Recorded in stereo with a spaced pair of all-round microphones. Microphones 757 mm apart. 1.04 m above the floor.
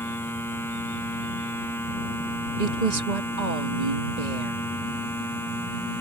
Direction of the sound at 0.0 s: 5° left (ahead or behind).